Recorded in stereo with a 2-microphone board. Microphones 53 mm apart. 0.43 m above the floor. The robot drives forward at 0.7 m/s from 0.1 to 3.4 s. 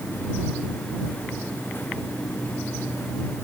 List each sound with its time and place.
Only background noise.